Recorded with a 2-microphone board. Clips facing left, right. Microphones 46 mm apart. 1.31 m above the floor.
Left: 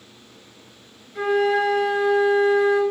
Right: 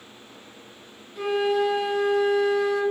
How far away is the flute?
About 0.8 m.